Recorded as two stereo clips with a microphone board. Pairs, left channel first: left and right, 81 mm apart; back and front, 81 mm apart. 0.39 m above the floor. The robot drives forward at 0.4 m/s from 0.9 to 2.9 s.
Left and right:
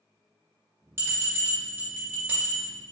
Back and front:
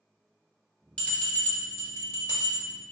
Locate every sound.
1.0 s a bell: 120° right, 1.1 m; by 2.6 s 150° right, 1.4 m